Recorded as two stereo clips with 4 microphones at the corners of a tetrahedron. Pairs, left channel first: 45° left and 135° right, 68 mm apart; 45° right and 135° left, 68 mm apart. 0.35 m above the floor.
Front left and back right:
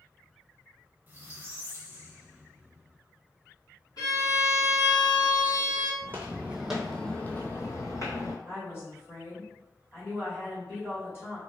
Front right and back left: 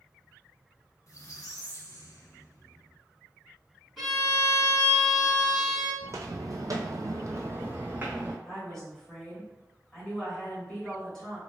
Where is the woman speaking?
30° left, 1.7 m.